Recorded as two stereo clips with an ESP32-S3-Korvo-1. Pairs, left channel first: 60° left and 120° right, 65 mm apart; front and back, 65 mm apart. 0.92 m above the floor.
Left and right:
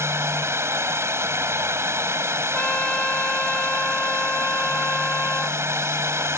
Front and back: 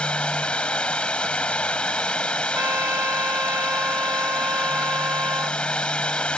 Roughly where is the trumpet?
Behind left.